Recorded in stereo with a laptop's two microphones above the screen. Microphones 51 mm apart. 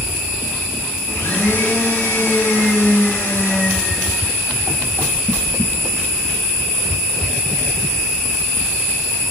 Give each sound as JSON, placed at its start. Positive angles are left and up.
{"t": 1.1, "sound": "a blender", "side_deg": 75, "distance_m": 7.5}